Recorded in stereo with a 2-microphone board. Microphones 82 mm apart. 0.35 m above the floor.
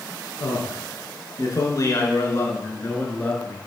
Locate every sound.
0.4 s a man speaking: 65° left (ahead or behind), 4.5 m; by 3.6 s 20° left (ahead or behind), 5 m